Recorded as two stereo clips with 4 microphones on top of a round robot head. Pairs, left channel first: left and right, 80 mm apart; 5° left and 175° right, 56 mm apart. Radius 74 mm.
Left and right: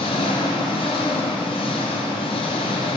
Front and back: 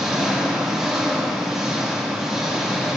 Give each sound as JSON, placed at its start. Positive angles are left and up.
{"t": 0.0, "sound": "an engine running", "azimuth_deg": 100, "distance_m": 1.7}